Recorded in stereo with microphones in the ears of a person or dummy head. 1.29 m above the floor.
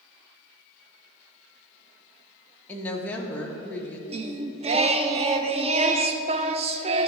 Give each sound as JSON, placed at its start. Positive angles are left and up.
{"t": 2.7, "sound": "a woman speaking", "side_deg": 10, "distance_m": 1.3}
{"t": 4.1, "sound": "singing", "side_deg": -30, "distance_m": 0.5}